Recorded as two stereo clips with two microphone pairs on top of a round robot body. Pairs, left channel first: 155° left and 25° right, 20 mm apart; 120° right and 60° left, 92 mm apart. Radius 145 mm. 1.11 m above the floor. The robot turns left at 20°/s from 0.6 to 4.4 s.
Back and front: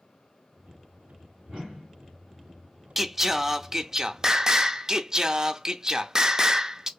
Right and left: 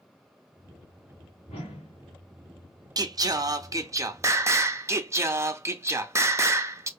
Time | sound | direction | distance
1.5 | a whoosh | 110° right | 1.6 m
3.0 | singing | 40° left | 0.6 m